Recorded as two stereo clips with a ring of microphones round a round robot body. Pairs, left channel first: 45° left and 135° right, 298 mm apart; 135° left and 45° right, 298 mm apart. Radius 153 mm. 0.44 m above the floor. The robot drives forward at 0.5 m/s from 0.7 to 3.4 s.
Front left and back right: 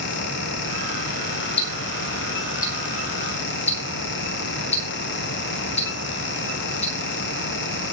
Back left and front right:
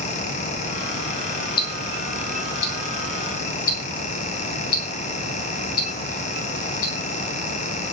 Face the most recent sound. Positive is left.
turn(degrees=115)